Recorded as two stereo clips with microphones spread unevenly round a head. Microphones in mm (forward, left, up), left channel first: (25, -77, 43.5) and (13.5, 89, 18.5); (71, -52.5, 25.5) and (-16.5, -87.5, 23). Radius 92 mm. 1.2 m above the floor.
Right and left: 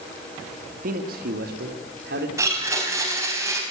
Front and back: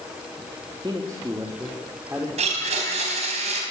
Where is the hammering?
No hammering in this recording.